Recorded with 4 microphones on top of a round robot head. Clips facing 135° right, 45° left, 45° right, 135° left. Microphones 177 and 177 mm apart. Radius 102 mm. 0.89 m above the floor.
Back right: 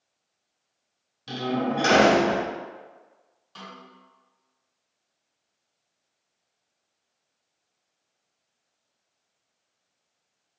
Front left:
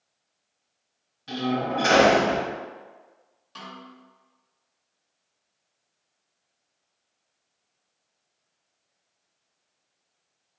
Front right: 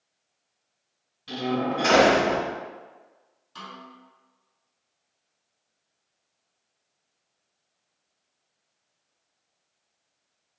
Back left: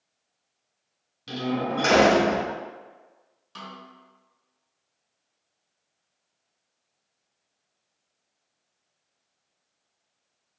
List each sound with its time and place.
1.3 s a door slam: 175° left, 2.0 m
3.5 s a snare drum: 120° left, 1.9 m